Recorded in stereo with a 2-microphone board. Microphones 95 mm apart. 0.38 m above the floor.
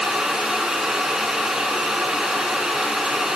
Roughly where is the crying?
I don't hear crying.